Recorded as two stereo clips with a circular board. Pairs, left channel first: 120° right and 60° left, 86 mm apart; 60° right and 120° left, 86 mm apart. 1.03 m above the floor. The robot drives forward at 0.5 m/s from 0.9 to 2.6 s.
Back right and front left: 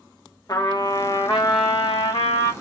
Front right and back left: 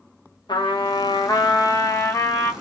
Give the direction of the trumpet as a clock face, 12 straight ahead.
3 o'clock.